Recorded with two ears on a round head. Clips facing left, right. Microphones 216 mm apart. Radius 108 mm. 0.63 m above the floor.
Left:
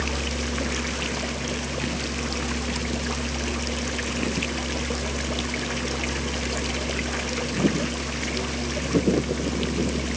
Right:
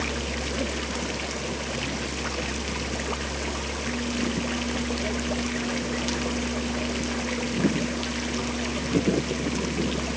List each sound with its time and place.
Only background noise.